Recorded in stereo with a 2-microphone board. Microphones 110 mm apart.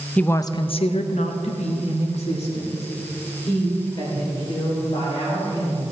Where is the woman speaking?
10° left (ahead or behind), 0.6 m; by 5.9 s 60° left (ahead or behind), 4.5 m.